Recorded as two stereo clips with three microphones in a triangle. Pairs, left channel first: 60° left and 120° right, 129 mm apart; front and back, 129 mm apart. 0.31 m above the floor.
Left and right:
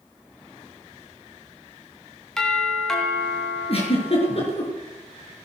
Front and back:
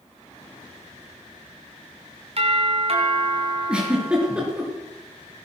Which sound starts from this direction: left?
A giggle, at 3.7 s.